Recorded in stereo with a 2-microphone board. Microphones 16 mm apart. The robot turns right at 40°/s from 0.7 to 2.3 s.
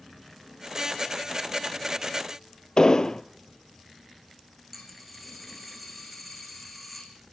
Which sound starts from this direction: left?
An explosion, at 2.8 s.